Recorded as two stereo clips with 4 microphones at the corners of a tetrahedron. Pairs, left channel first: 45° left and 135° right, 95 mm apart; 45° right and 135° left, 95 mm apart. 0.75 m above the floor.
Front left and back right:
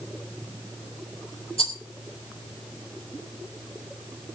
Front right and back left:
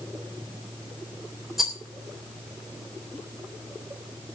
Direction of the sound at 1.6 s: 50° left.